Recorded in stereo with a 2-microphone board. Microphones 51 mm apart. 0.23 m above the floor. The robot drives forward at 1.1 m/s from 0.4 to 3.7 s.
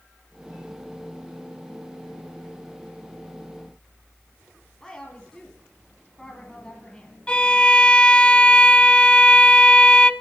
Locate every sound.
4.8 s a woman speaking: 10° left (ahead or behind), 2 m
7.3 s a violin: 20° left (ahead or behind), 0.7 m